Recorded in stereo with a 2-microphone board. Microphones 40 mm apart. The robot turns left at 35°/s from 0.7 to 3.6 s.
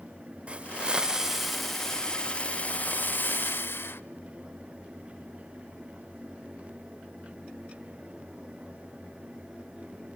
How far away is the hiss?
About 0.7 m.